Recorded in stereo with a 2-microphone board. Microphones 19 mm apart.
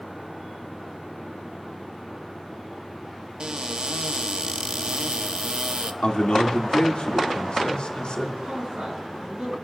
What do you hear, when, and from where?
3.4 s a cupboard door: 55° right (ahead or behind), 0.7 m
6.0 s a man speaking: 80° left, 2.5 m
8.4 s a man speaking: 80° right, 7.5 m